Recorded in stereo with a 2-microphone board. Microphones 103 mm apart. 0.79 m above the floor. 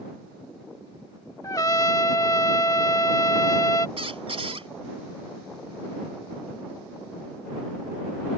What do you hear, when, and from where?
1.4 s a trumpet: 35° left (ahead or behind)
4.0 s a squeak: 70° right (ahead or behind)